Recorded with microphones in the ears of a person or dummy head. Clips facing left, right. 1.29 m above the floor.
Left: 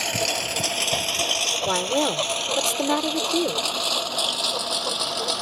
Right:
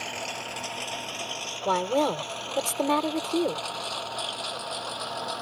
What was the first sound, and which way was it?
A lawn mower, 80° left.